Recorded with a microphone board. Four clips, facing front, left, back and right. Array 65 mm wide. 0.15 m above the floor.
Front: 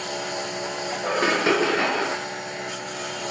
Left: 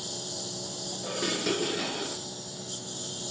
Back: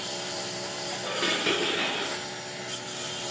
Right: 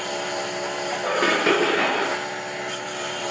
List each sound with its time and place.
0.0 s a lawn mower: 60° right
1.0 s dishes clattering: 50° right